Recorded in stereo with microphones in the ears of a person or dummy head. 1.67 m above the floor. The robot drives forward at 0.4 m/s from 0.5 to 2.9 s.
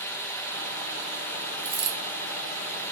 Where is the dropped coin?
35° right (ahead or behind), 1.8 m.